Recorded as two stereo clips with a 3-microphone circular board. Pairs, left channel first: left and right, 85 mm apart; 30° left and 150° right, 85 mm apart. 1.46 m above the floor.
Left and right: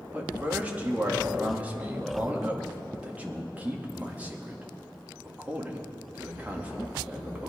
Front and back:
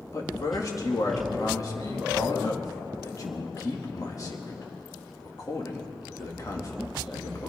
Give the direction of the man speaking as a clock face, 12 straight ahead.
1 o'clock.